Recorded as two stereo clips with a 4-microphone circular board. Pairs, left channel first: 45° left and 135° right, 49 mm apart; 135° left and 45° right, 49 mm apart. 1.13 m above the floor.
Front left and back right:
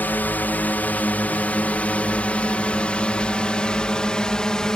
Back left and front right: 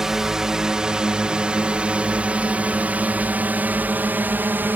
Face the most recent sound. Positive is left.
turn(degrees=-25)